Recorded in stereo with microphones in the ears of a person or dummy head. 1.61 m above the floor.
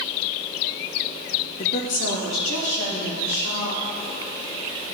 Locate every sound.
1.6 s a woman speaking: 45° left (ahead or behind), 0.8 m; by 3.8 s 85° left, 4 m